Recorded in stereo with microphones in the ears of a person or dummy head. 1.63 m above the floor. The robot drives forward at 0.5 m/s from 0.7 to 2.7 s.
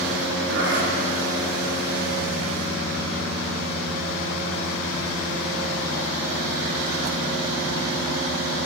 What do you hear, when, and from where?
0.5 s a zipper: 60° right (ahead or behind), 2 m; by 1.0 s 55° right (ahead or behind), 2 m